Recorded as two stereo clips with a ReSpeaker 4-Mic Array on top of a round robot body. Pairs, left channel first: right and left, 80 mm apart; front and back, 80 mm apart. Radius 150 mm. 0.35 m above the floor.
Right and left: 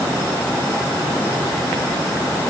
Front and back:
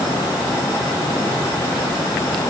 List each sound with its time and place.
Only background noise.